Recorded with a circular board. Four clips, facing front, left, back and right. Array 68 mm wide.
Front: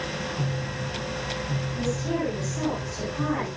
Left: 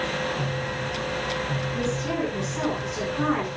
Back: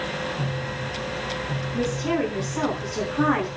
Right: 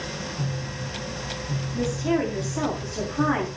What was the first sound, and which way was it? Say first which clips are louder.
A woman speaking: right 5 dB, back 4 dB; 170° right.